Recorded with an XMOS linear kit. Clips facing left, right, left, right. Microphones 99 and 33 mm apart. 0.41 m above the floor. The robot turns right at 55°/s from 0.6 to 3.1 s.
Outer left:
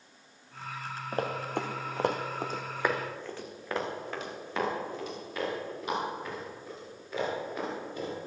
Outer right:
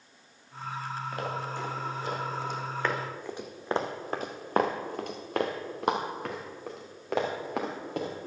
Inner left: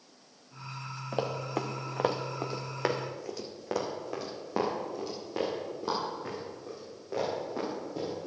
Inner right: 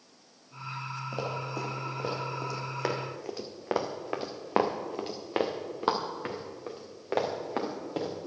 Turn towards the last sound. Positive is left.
turn(degrees=-80)